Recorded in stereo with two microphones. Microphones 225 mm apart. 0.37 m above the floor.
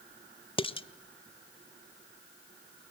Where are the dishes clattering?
25° left (ahead or behind), 0.7 m.